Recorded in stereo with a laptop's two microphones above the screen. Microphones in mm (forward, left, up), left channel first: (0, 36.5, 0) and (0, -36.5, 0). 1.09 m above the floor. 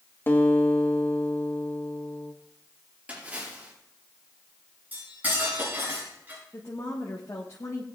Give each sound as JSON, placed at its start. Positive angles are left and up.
{"t": 0.3, "sound": "a guitar", "side_deg": 30, "distance_m": 1.2}
{"t": 3.1, "sound": "a splash", "side_deg": -20, "distance_m": 4.5}
{"t": 4.9, "sound": "cutlery clinking", "side_deg": -25, "distance_m": 7.0}
{"t": 6.5, "sound": "a woman speaking", "side_deg": 45, "distance_m": 1.3}